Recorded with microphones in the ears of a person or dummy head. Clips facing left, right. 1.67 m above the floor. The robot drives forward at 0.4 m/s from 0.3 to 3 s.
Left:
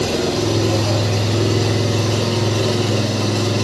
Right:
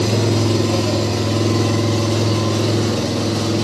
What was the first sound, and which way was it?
An engine running, 15° left (ahead or behind).